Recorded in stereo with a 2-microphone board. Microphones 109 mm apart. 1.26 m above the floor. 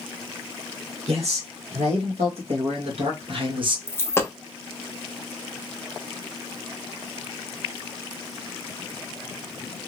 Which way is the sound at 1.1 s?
80° right.